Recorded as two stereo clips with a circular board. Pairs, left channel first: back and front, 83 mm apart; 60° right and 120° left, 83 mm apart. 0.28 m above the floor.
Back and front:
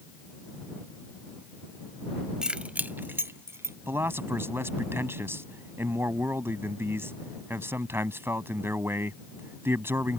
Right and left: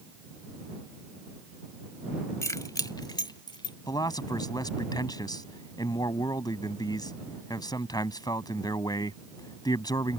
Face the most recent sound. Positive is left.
turn(degrees=-55)